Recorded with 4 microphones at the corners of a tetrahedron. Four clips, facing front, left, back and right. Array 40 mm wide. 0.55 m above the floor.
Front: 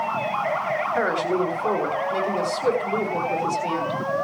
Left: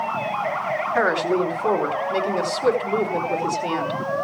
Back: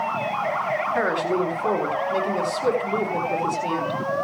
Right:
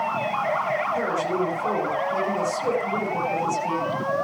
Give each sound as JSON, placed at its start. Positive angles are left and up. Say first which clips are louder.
{"t": 0.9, "sound": "a woman speaking", "louder": "left 4 dB, front 1 dB", "azimuth_deg": 105, "distance_m": 4.5}